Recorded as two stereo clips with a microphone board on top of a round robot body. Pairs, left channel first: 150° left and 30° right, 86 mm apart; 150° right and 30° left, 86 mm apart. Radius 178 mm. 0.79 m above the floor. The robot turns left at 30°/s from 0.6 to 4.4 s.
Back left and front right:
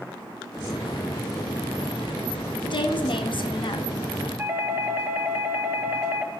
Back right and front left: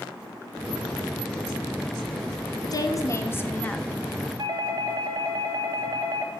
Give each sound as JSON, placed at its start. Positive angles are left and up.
{"t": 2.6, "sound": "a woman speaking", "azimuth_deg": 170, "distance_m": 1.7}
{"t": 4.4, "sound": "a doorbell", "azimuth_deg": 30, "distance_m": 2.0}